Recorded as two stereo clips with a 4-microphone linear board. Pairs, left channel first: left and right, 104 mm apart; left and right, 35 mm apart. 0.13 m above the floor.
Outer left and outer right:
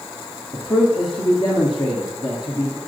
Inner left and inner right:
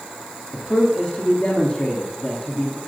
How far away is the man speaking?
About 1.7 m.